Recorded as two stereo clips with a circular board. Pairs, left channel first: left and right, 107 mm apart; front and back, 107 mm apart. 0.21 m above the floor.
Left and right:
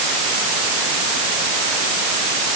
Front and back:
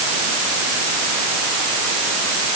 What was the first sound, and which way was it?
Only background noise.